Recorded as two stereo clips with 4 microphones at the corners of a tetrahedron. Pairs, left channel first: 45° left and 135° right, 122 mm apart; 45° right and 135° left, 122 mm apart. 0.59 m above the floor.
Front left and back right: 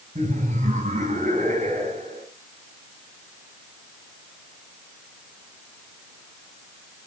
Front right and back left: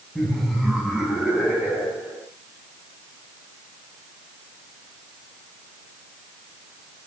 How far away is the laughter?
About 5 m.